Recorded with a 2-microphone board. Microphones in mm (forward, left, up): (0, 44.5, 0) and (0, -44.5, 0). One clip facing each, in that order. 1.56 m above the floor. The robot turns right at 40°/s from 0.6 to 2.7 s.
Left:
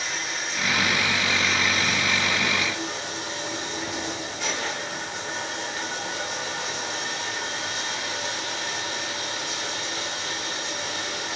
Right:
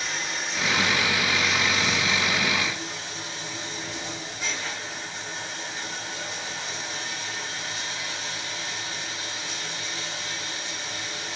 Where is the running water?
Straight ahead, 2.5 m; by 11.4 s 85° left, 2.5 m.